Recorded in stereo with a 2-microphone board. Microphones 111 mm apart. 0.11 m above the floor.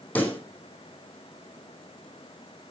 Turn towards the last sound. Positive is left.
turn(degrees=15)  # may be behind; listen again after turning